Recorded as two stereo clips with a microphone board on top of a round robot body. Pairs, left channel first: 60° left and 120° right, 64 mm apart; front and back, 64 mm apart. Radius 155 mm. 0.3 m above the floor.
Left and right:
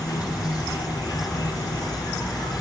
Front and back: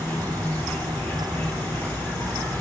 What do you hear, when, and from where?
0.0 s an insect: 65° left, 5.5 m